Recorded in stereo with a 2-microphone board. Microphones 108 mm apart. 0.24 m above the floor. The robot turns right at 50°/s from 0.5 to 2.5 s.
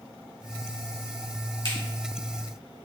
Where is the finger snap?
55° left (ahead or behind), 1.5 m.